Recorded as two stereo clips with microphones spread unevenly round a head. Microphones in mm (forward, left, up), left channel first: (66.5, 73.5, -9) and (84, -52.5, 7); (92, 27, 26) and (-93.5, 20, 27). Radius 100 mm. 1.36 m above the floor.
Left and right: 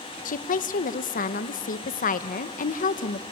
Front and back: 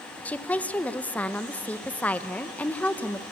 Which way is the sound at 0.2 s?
85° left.